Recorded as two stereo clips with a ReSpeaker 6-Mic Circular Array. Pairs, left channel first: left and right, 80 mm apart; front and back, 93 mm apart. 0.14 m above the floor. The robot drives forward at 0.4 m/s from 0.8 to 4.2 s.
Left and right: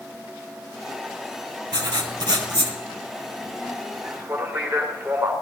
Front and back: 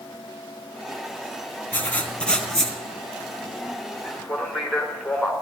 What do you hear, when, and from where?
1.7 s writing: 70° right, 1.5 m; by 2.8 s 85° right, 1.4 m
4.0 s a man speaking: 80° right, 1.6 m; by 5.3 s 85° right, 1.6 m